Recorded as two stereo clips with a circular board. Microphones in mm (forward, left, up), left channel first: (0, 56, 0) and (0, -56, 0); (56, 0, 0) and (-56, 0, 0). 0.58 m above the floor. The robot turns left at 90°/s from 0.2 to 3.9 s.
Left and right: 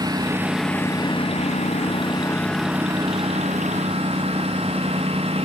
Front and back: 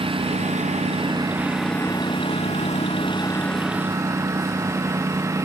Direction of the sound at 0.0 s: 145° right.